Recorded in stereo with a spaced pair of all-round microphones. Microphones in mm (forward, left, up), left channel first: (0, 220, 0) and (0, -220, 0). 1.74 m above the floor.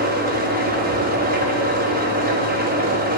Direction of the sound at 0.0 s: 20° right (ahead or behind).